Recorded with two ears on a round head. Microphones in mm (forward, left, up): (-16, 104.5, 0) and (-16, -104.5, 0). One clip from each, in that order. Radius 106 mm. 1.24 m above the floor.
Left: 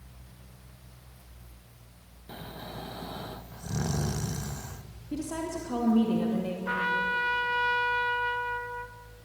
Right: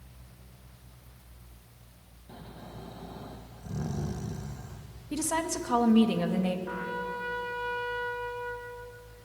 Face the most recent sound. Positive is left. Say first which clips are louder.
# left 7 dB
turn(degrees=65)  # may be behind; listen again after turning